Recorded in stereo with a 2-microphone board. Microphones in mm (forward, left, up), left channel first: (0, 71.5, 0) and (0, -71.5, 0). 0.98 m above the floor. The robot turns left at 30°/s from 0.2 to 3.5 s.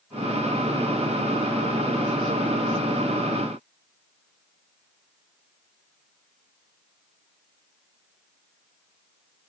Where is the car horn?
I don't hear a car horn.